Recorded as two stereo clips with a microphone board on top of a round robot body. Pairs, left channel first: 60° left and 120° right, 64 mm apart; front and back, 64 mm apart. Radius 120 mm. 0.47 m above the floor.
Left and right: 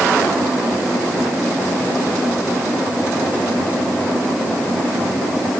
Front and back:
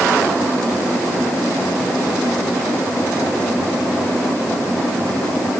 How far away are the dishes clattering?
No dishes clattering in this recording.